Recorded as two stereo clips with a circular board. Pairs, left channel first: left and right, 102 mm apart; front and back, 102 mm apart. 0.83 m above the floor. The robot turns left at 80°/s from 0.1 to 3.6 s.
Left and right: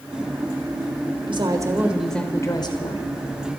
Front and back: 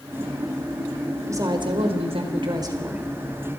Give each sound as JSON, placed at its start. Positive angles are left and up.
{"t": 1.3, "sound": "a woman speaking", "azimuth_deg": -120, "distance_m": 4.0}